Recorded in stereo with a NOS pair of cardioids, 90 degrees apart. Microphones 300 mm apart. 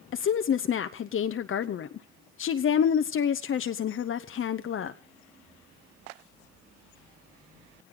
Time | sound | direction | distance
0.1 | a woman speaking | 45° left | 0.8 m